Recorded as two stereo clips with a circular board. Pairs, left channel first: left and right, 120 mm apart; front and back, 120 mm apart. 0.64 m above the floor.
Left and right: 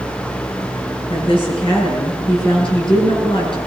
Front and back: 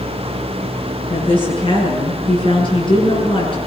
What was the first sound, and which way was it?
A woman speaking, 45° left.